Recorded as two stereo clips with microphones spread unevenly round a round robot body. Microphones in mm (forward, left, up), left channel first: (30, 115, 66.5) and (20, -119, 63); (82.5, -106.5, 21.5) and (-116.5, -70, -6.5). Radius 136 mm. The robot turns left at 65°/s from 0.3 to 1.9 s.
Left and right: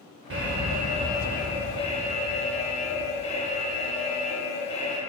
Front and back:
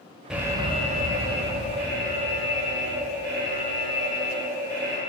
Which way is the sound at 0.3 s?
110° right.